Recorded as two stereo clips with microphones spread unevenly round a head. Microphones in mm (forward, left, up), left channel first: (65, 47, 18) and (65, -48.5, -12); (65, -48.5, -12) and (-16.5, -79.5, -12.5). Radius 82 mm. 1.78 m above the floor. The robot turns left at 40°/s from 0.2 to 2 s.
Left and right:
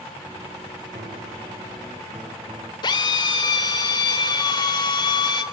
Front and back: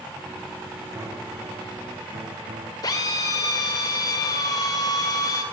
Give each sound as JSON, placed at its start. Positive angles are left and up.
{"t": 0.9, "sound": "a piano", "azimuth_deg": -100, "distance_m": 3.0}
{"t": 2.8, "sound": "a drill", "azimuth_deg": 70, "distance_m": 2.5}